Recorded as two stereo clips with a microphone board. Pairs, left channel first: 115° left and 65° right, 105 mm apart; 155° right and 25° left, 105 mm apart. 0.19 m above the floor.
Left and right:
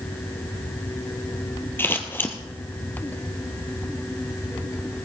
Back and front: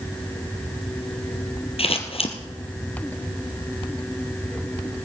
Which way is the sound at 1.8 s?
Straight behind.